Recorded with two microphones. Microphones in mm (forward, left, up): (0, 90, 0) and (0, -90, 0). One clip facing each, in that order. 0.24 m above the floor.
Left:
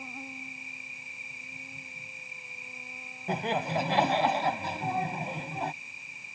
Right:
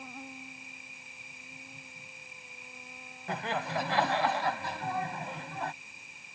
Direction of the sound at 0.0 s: 5° left (ahead or behind).